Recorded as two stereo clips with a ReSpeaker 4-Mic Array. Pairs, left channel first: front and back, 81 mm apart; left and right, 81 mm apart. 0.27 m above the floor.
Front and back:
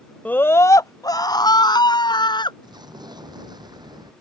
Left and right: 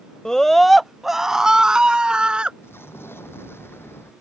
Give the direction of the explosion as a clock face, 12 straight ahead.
7 o'clock.